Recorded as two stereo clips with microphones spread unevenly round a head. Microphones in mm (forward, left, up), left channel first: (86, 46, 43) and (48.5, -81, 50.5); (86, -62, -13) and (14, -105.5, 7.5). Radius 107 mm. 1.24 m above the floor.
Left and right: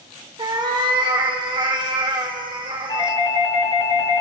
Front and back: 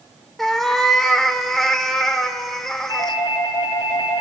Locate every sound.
0.4 s a cat meowing: 70° right, 1.1 m
2.9 s a doorbell: 25° left, 4.5 m